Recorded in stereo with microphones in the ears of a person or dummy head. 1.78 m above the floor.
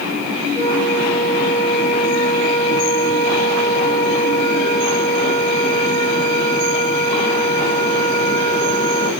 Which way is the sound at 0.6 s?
20° left (ahead or behind).